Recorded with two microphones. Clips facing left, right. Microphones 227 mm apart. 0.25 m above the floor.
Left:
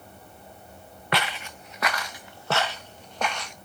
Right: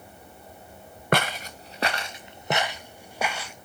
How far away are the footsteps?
About 1.1 m.